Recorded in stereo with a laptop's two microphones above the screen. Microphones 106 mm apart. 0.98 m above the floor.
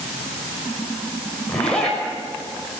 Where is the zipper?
5° left (ahead or behind), 6 m.